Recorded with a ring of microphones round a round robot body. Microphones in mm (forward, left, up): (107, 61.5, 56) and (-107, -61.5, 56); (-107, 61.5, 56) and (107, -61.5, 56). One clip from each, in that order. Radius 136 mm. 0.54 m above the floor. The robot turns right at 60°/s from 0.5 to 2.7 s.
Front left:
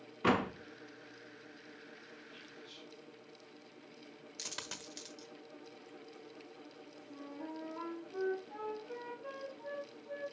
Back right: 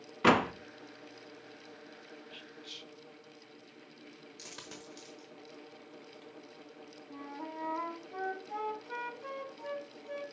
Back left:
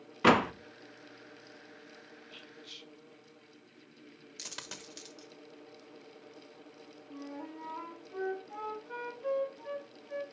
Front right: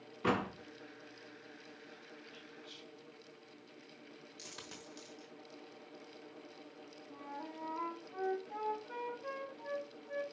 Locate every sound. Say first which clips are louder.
0.2 s a door slam: back right 6 dB, back left 10 dB; 160° left, 0.6 m
2.3 s whispering: back right 8 dB, back left 4 dB; 170° right, 0.8 m; by 2.9 s 145° right, 0.8 m
4.4 s a dropped coin: front left 5 dB, back left 7 dB; 90° left, 1.1 m
7.1 s a flute: back right 3 dB, back left 2 dB; 115° right, 1.2 m